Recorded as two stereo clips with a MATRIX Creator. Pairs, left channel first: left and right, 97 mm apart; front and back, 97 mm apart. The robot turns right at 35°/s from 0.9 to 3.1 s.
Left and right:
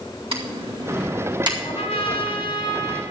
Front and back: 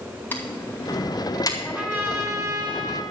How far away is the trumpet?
About 1.6 m.